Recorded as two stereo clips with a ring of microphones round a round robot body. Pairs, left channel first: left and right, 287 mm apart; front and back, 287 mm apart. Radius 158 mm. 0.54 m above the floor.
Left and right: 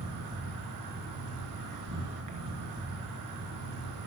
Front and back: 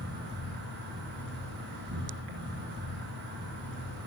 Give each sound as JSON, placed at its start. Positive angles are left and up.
{"t": 0.0, "sound": "an insect", "azimuth_deg": -125, "distance_m": 6.0}